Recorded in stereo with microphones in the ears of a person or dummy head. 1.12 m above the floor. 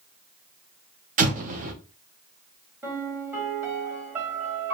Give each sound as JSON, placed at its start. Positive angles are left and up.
{"t": 1.2, "sound": "an explosion", "side_deg": -40, "distance_m": 0.6}
{"t": 2.8, "sound": "a piano", "side_deg": -10, "distance_m": 1.1}